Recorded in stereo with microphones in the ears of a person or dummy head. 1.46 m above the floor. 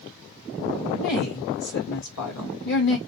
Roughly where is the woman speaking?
Left.